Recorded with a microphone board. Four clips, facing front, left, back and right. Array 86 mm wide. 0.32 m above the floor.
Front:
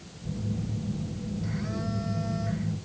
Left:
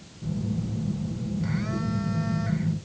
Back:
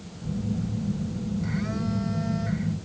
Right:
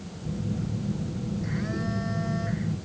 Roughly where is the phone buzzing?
Behind left.